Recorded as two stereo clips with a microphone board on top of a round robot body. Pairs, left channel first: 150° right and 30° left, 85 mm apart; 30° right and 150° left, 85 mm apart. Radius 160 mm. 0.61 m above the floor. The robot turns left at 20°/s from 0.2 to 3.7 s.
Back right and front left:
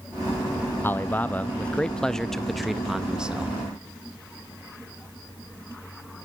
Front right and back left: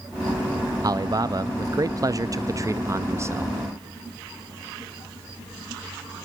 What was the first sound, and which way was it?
A man speaking, 155° left.